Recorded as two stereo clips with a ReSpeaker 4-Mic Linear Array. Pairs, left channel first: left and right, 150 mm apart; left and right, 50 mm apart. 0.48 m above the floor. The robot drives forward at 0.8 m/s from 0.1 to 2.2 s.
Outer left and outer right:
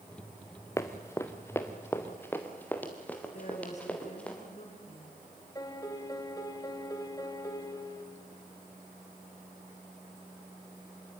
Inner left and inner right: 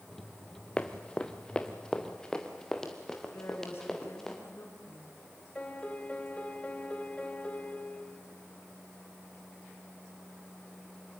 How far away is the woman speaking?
About 6 m.